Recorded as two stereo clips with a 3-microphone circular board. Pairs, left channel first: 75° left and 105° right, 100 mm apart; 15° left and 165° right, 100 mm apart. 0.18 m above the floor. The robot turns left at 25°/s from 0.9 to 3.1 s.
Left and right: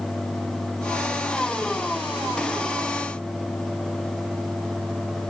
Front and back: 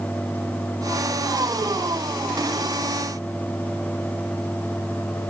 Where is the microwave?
I don't hear a microwave.